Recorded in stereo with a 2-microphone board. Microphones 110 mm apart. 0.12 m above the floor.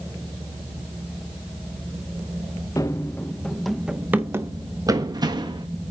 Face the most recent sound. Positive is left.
turn(degrees=-45)  # may be behind; listen again after turning